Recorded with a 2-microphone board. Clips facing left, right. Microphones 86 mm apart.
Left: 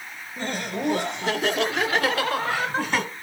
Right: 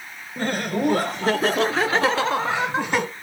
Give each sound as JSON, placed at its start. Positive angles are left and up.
{"t": 0.4, "sound": "laughter", "side_deg": -50, "distance_m": 1.9}